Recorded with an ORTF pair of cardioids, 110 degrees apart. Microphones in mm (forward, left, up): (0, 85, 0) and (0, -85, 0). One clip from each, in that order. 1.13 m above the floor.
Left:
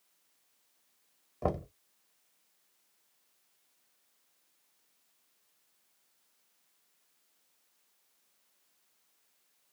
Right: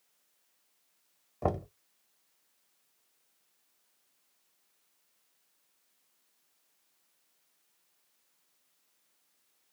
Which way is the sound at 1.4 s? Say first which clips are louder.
Right 1 dB; 5° right.